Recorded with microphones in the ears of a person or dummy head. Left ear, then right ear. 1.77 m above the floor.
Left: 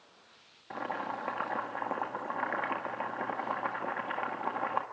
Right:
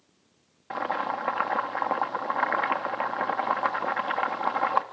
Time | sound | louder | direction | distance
0.7 | boiling | right 7 dB | 50° right (ahead or behind) | 1.6 m